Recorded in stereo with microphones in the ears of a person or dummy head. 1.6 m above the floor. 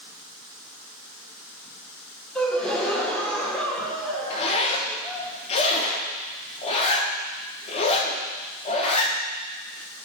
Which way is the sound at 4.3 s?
35° left (ahead or behind).